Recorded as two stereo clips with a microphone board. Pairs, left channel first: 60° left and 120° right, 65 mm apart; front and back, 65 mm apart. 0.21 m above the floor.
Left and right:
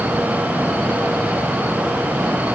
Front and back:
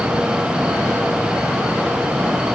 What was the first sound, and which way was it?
Only background noise.